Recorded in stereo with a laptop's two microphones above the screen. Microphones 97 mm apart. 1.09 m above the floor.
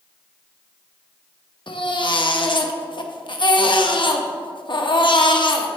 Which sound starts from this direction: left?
A baby crying, at 1.7 s.